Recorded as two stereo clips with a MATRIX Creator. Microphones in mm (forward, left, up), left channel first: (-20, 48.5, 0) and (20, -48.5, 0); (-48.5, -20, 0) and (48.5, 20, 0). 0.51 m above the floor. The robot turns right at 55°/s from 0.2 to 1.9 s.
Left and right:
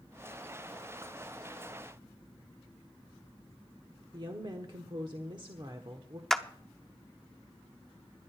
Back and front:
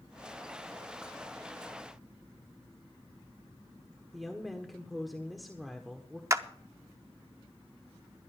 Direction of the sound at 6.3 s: 30° left.